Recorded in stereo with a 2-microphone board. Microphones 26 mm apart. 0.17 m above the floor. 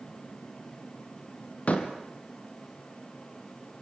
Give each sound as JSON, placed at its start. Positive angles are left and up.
{"t": 1.7, "sound": "a door slam", "side_deg": 60, "distance_m": 3.0}